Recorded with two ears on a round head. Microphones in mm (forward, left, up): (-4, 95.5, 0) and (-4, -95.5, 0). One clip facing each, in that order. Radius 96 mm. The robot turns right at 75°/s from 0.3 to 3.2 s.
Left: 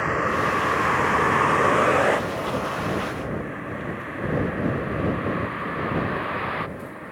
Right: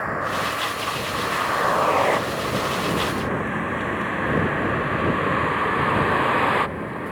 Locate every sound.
0.0 s a vehicle: 40° left (ahead or behind); by 7.1 s 65° right (ahead or behind)